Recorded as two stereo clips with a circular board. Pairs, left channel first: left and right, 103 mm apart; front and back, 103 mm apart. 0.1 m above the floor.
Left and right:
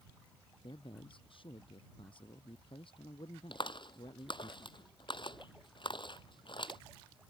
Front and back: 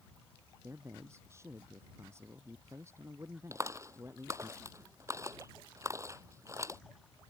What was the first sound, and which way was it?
A man speaking, 120° left.